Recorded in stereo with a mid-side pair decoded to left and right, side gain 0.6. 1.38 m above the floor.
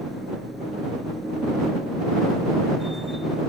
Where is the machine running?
Straight ahead.